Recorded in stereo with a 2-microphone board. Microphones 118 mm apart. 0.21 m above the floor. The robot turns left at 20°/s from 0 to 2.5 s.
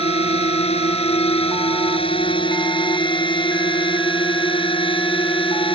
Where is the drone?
65° left (ahead or behind); by 5.8 s 55° left (ahead or behind).